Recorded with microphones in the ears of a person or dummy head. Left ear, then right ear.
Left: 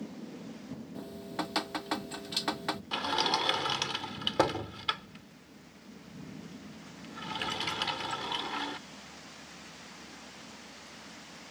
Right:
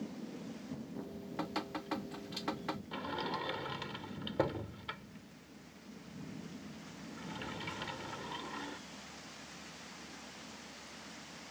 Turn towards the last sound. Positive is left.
turn(degrees=45)  # may be behind; listen again after turning